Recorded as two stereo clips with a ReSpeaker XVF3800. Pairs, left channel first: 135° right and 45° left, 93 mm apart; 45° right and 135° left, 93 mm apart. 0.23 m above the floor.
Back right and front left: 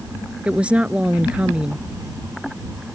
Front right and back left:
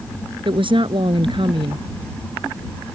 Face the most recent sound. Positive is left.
turn(degrees=120)